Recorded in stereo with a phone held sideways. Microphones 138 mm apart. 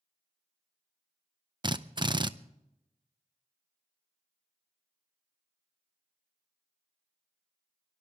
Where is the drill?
35° right (ahead or behind), 0.6 m.